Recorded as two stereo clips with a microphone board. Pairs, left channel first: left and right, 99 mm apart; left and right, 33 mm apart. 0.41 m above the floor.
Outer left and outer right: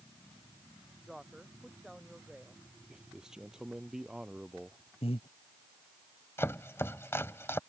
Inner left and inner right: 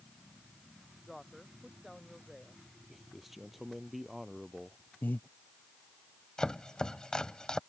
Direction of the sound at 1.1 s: 5° right (ahead or behind).